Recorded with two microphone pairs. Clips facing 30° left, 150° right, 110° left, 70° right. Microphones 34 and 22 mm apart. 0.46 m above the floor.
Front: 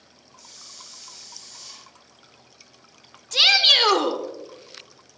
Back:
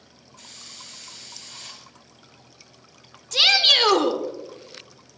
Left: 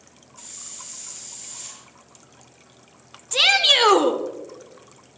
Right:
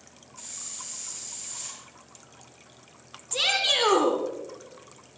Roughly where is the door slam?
I don't hear a door slam.